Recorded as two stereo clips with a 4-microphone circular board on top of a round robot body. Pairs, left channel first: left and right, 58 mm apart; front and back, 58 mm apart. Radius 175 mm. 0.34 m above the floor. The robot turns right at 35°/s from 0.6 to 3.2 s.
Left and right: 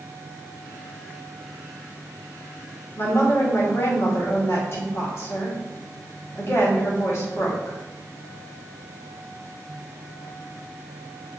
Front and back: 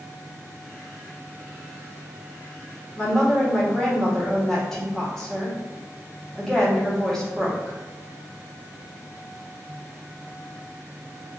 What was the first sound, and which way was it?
A woman speaking, 70° left.